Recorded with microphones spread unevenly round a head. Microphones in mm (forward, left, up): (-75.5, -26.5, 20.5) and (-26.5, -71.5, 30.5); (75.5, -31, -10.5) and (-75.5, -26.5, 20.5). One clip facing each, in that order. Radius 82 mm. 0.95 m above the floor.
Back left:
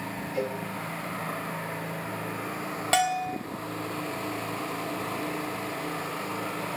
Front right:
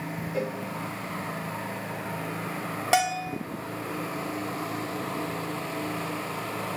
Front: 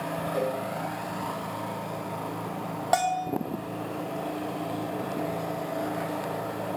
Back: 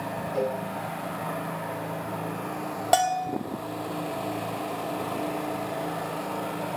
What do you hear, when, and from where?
0.3 s a cowbell: 80° right, 4 m
2.9 s a bell: 120° right, 1.2 m